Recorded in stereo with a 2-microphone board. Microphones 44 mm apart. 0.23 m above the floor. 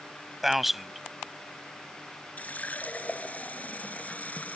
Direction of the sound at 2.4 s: 35° left (ahead or behind).